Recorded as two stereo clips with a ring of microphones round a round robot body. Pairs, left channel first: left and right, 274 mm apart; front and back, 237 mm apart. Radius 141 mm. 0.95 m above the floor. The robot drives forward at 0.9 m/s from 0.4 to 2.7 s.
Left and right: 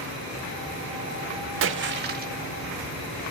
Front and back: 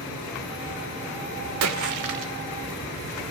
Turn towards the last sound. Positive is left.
turn(degrees=-155)